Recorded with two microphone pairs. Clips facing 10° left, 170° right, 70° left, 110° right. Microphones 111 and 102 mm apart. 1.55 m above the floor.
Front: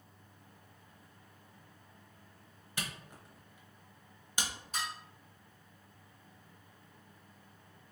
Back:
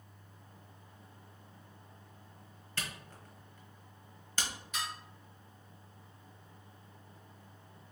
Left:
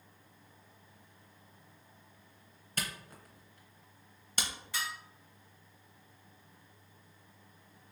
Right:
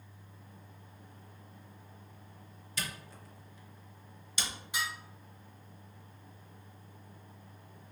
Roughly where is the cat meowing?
I don't hear a cat meowing.